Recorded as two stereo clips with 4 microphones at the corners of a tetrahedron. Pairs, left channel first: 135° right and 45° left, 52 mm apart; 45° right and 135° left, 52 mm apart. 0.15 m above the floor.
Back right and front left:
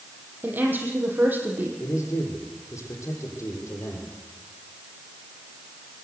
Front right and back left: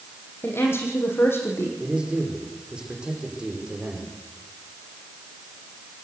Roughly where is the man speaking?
Behind right.